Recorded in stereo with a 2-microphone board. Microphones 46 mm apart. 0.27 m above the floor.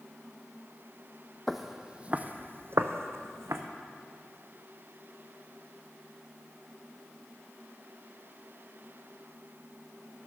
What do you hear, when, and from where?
1.5 s footsteps: centre (ahead or behind), 0.6 m; by 3.6 s 80° right, 1.0 m